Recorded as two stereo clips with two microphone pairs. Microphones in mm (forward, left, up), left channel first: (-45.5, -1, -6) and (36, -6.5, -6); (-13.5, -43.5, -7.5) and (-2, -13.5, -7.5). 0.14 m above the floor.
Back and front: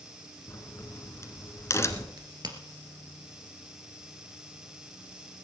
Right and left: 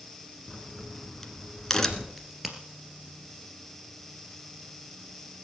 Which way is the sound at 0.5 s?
175° right.